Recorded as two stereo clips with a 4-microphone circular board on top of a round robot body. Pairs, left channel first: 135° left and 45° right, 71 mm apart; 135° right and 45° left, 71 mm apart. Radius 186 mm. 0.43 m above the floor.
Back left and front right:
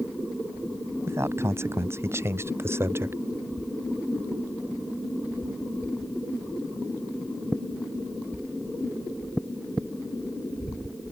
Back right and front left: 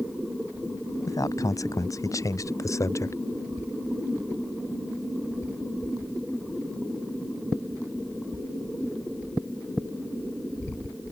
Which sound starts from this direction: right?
A man speaking, at 1.1 s.